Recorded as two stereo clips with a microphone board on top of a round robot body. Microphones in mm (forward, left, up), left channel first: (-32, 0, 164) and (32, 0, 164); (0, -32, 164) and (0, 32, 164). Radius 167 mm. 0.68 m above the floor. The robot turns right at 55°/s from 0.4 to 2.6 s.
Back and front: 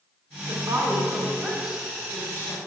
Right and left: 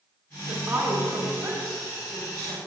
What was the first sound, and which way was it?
A woman speaking, 20° left.